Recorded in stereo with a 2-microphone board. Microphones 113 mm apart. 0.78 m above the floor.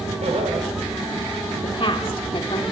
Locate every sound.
0.2 s laughter: 70° right (ahead or behind), 3 m
1.6 s a woman speaking: 50° left (ahead or behind), 1.9 m